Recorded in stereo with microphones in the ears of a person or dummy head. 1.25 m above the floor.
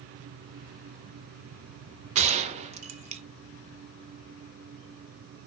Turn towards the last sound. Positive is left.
turn(degrees=-25)  # may be behind; listen again after turning